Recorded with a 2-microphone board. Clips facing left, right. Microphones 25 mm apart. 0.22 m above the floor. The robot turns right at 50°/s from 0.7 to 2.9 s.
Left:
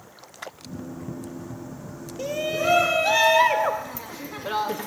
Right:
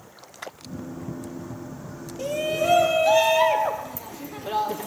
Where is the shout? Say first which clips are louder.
Right 1 dB; 15° left, 3.5 m; by 4.9 s 50° left, 3.5 m.